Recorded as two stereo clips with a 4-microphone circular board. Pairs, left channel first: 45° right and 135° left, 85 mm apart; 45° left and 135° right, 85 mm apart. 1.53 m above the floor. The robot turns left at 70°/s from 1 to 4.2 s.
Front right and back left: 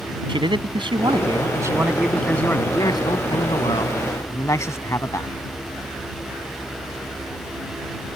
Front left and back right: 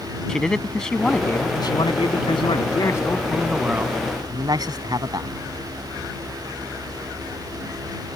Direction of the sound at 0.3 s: 125° left.